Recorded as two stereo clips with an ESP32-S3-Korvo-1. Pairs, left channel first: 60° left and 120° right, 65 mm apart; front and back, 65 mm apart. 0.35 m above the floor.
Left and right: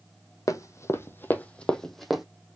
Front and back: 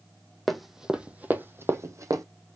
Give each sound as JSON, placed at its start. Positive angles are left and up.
{"t": 0.5, "sound": "running footsteps", "azimuth_deg": 85, "distance_m": 0.9}